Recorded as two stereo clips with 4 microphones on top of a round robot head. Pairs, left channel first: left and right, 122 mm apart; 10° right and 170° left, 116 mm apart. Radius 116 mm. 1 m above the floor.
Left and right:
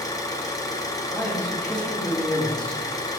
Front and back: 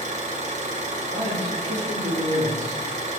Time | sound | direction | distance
0.0 | an engine running | 150° left | 1.8 m
1.1 | a man speaking | 170° left | 3.5 m